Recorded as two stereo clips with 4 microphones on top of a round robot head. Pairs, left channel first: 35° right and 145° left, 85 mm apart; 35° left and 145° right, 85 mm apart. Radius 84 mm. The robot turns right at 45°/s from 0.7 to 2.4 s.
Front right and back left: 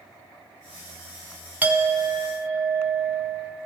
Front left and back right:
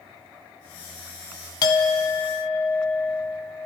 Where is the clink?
75° left, 0.6 m; by 3.7 s 110° left, 0.6 m.